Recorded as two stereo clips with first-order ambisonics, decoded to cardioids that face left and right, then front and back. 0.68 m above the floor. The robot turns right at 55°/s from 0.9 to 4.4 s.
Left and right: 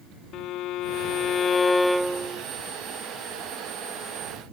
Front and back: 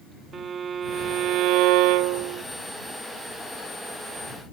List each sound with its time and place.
0.3 s a violin: 120° left; by 2.5 s 155° right